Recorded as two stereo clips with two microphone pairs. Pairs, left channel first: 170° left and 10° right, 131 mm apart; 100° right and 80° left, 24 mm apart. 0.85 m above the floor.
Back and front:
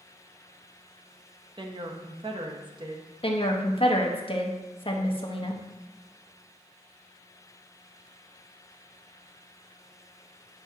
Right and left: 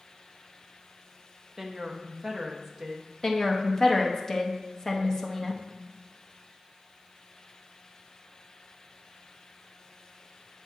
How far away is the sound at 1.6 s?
About 0.7 m.